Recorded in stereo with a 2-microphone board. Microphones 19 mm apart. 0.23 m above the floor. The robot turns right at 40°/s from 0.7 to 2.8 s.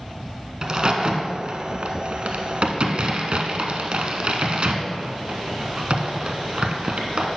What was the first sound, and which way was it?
A crack, 35° right (ahead or behind).